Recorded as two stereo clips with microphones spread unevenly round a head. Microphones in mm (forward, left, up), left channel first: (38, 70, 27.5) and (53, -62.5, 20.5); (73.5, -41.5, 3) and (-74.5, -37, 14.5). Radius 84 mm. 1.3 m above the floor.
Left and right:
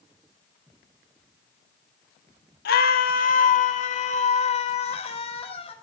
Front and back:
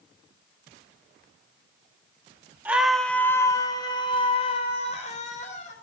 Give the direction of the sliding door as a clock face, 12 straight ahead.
I don't hear a sliding door.